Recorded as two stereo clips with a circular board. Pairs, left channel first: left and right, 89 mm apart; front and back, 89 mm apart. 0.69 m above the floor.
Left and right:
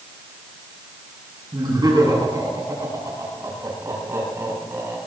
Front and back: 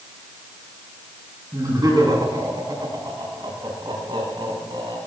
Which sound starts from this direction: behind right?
Laughter, at 1.5 s.